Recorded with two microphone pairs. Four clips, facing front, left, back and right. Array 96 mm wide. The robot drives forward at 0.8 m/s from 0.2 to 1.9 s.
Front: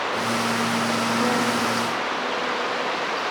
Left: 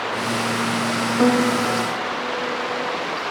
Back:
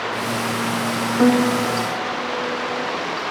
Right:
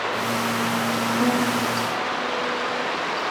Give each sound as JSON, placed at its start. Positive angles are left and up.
{"t": 1.2, "sound": "a piano", "azimuth_deg": 130, "distance_m": 0.9}